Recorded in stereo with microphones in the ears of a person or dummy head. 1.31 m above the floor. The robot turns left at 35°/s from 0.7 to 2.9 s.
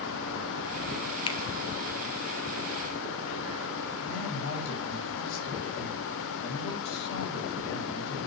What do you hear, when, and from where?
1.3 s a finger snap: 20° left (ahead or behind), 0.6 m
4.0 s a man speaking: 65° left (ahead or behind), 6.5 m